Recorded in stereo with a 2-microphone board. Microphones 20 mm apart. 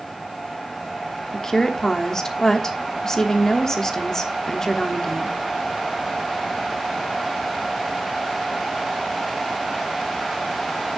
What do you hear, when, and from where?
1.3 s a woman speaking: 25° left (ahead or behind), 1.2 m